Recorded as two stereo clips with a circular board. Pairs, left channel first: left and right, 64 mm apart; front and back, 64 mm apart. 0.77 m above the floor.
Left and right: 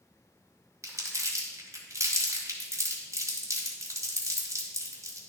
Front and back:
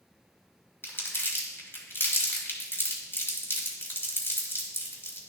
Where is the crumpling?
50° right, 1.8 m.